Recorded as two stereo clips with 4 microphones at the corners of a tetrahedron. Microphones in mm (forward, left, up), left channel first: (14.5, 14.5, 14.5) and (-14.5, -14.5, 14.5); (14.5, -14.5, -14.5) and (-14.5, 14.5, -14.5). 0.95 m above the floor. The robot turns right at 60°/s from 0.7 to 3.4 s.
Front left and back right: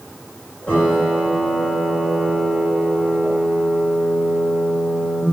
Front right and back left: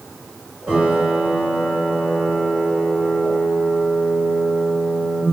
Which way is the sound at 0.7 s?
90° left.